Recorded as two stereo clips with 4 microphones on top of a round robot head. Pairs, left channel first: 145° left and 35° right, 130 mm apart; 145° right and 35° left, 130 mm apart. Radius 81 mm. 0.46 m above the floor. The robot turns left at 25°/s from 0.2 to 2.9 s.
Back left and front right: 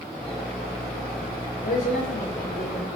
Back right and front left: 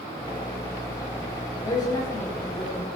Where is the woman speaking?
160° left, 9 m; by 2.9 s 130° left, 9 m.